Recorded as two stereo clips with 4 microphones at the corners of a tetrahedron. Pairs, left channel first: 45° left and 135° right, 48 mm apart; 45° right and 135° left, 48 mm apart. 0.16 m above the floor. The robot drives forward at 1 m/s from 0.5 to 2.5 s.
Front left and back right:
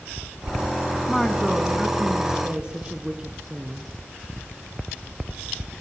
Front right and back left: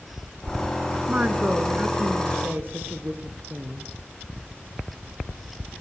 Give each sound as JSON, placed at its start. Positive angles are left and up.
{"t": 1.1, "sound": "a woman speaking", "azimuth_deg": 120, "distance_m": 1.7}